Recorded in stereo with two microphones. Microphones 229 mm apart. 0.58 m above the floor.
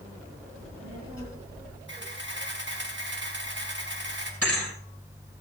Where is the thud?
85° right, 6.5 m.